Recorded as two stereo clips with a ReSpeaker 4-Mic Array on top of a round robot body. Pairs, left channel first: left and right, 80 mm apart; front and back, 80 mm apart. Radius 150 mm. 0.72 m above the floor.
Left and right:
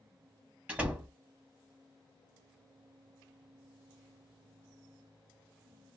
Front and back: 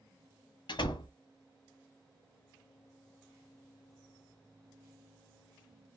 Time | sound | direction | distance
0.7 | a door slam | 15° right | 1.3 m